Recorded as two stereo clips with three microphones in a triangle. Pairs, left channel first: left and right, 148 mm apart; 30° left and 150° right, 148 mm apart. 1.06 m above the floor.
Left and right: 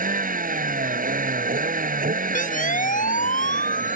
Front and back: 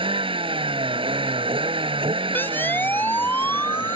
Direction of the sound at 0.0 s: 100° right.